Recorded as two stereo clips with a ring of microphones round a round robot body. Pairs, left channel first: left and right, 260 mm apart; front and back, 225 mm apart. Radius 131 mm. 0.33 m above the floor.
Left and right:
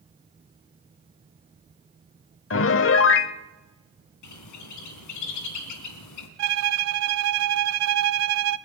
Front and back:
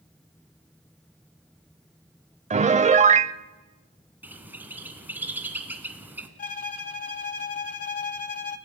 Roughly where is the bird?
Left.